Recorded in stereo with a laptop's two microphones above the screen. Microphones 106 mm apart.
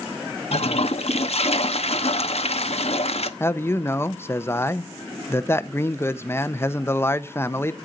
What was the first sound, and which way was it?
A toilet flushing, 65° left (ahead or behind).